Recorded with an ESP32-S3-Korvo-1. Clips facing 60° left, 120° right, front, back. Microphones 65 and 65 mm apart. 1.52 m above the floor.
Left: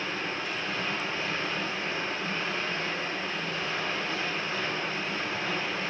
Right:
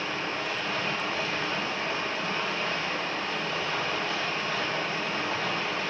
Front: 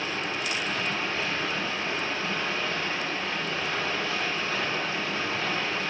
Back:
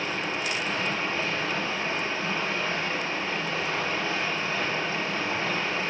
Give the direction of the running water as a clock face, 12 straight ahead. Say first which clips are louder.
Right 2 dB, back 1 dB; 4 o'clock.